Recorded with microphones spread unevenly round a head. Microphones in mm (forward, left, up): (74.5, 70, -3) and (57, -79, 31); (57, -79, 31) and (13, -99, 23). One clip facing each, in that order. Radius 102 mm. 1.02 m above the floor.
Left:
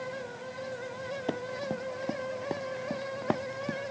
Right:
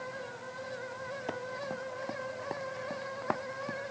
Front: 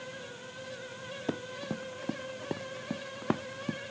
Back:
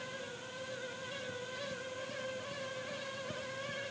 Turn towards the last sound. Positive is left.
turn(degrees=20)